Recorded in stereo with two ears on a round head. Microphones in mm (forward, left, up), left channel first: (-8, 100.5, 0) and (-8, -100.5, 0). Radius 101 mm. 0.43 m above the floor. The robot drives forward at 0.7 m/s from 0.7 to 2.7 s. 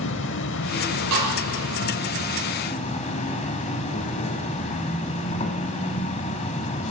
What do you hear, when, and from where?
0.0 s an insect: 55° left (ahead or behind), 0.8 m; by 6.9 s 30° left (ahead or behind), 1.2 m
1.1 s a snare drum: 85° right, 8 m